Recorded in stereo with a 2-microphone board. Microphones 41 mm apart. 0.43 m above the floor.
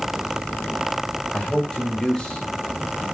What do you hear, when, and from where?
1.3 s a man speaking: 20° left (ahead or behind), 2 m